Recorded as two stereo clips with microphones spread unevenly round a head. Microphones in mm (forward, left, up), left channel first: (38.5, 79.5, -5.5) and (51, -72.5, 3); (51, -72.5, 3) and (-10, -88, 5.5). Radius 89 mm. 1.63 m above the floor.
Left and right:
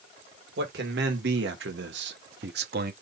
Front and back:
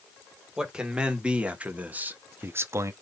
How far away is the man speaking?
About 2 m.